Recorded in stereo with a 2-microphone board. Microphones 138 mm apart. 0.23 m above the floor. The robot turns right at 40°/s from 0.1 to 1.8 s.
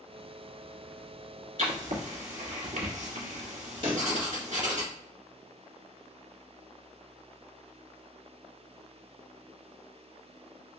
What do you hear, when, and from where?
1.6 s writing: 70° right (ahead or behind), 1.5 m
3.8 s a pop: 45° right (ahead or behind), 1.8 m